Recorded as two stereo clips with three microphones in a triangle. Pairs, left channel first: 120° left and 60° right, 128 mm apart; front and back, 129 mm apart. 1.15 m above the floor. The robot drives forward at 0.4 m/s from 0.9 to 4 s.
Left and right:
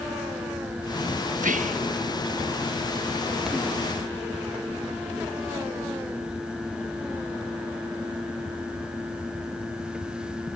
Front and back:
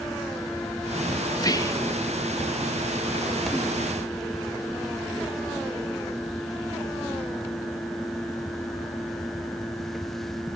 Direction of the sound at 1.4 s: 55° right.